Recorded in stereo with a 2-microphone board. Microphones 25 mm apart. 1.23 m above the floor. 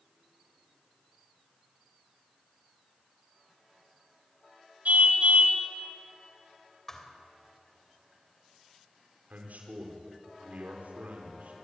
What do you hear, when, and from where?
4.8 s a car horn: 80° right, 2.5 m
6.9 s a thud: 20° left (ahead or behind), 3 m
9.3 s a man speaking: 85° right, 4.5 m